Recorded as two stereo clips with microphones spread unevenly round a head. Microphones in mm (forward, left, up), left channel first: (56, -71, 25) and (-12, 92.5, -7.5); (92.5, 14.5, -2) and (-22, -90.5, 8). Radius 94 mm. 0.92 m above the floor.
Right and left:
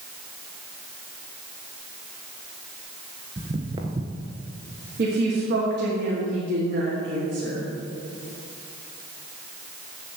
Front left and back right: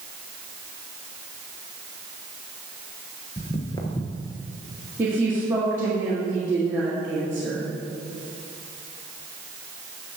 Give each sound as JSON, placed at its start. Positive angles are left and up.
{"t": 3.4, "sound": "footsteps", "azimuth_deg": 60, "distance_m": 0.9}
{"t": 5.0, "sound": "a woman speaking", "azimuth_deg": 145, "distance_m": 1.5}